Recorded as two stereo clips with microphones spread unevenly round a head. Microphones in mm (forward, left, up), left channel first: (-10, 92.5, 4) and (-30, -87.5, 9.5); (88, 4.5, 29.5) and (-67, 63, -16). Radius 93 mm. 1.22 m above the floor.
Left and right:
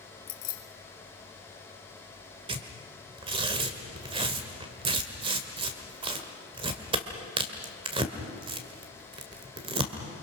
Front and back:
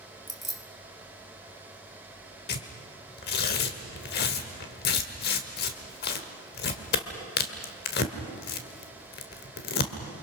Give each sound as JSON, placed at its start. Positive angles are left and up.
{"t": 0.3, "sound": "keys jangling", "azimuth_deg": 70, "distance_m": 2.0}
{"t": 2.5, "sound": "tearing paper", "azimuth_deg": -35, "distance_m": 1.7}